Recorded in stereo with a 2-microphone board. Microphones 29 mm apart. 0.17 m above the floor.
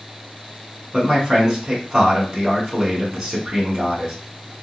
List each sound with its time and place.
0.9 s a man speaking: 20° right (ahead or behind), 1.5 m